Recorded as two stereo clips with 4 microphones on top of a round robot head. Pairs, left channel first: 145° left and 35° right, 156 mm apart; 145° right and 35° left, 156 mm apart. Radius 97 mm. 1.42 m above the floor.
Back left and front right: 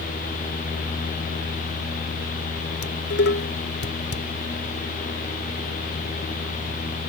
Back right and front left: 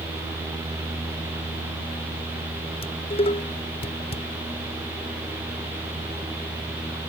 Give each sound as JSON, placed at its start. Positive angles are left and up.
{"t": 2.8, "sound": "dishes clattering", "azimuth_deg": 160}